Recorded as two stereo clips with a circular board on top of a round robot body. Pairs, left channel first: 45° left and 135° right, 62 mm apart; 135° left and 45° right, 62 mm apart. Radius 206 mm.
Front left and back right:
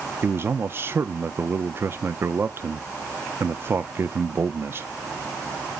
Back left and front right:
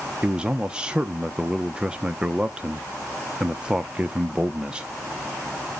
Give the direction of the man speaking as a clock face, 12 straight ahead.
4 o'clock.